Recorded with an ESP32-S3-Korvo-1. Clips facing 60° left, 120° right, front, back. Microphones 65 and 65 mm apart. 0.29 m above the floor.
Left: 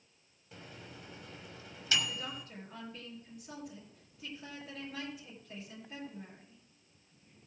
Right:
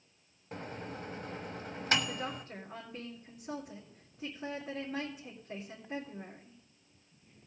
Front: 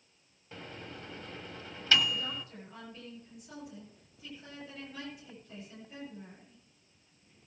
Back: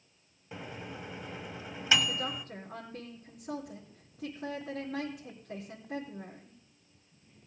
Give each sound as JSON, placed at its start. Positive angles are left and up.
{"t": 0.5, "sound": "a microwave", "azimuth_deg": -110, "distance_m": 1.1}
{"t": 2.1, "sound": "a woman speaking", "azimuth_deg": -175, "distance_m": 3.5}